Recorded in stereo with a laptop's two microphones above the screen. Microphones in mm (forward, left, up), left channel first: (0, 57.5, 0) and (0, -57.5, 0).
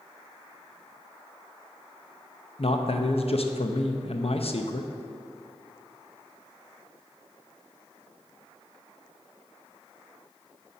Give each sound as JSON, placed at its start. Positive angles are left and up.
{"t": 2.6, "sound": "a man speaking", "side_deg": 60, "distance_m": 0.6}